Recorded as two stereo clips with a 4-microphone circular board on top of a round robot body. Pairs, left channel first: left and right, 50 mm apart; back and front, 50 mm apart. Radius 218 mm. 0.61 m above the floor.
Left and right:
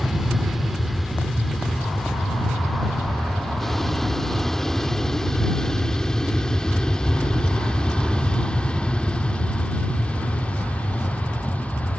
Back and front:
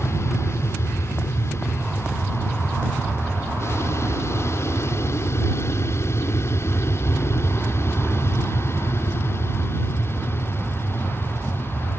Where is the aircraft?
175° right; by 12.0 s 150° left.